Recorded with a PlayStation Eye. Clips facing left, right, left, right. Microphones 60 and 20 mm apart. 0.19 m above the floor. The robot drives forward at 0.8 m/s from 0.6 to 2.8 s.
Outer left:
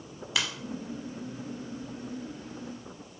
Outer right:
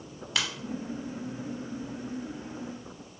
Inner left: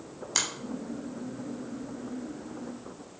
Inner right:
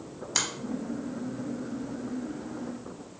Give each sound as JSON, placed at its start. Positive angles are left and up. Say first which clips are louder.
{"t": 0.3, "sound": "a finger snap", "louder": "even, even", "side_deg": 5, "distance_m": 0.9}